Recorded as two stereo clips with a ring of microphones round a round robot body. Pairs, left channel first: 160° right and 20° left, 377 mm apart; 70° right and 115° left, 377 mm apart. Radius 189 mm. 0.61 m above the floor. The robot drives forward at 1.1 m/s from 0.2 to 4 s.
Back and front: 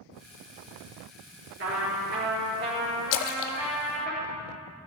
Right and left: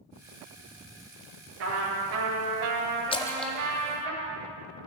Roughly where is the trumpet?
Left.